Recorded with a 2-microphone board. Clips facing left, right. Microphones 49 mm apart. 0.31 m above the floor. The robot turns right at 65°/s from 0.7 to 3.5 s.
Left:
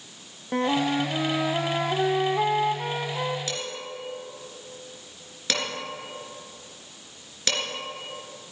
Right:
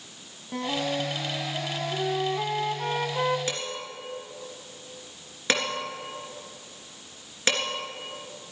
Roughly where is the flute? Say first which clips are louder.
Left 5 dB; ahead left.